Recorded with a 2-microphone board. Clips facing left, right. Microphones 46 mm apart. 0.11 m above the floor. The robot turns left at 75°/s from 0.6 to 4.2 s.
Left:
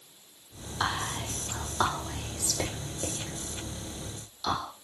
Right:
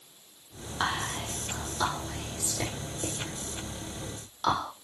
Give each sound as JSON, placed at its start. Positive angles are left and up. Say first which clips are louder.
{"t": 0.8, "sound": "whispering", "louder": "even", "side_deg": -25, "distance_m": 5.5}